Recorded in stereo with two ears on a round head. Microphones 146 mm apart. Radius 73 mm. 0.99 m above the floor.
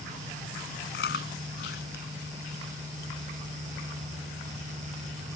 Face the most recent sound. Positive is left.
turn(degrees=65)  # may be behind; listen again after turning